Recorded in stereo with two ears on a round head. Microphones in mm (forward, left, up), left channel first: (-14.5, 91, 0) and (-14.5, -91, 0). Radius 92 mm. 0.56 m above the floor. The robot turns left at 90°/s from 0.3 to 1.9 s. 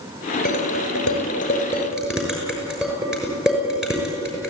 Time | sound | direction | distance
0.5 | dishes clattering | 55° left (ahead or behind) | 6 m